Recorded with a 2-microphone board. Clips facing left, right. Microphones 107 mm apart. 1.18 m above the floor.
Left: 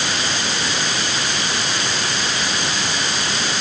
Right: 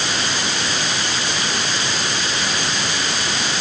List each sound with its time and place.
Only background noise.